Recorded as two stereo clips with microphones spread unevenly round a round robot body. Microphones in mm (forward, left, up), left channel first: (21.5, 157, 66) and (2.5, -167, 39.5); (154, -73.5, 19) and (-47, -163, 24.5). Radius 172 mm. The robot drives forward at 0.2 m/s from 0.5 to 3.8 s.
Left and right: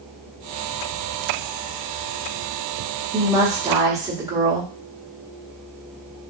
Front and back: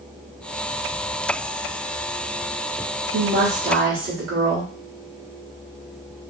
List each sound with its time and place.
3.1 s a woman speaking: 165° right, 1.2 m; by 4.7 s 170° right, 1.3 m